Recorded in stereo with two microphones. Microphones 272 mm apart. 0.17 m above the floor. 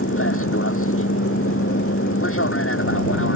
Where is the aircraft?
50° left (ahead or behind).